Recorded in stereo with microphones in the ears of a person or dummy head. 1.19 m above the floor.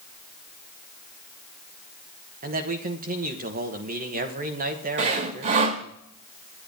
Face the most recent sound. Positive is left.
turn(degrees=-40)  # may be behind; listen again after turning